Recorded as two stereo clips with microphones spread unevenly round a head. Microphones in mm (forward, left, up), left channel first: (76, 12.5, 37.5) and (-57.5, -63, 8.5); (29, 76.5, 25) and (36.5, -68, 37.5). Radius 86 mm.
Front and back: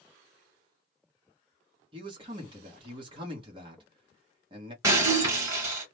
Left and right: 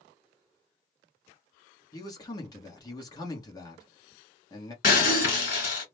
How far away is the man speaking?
About 1.3 m.